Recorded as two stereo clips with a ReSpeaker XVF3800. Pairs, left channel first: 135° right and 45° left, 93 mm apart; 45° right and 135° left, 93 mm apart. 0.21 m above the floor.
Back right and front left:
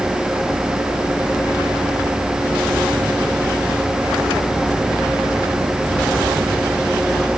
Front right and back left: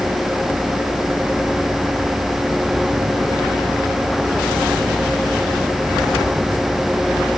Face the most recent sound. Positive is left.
No sound to turn to.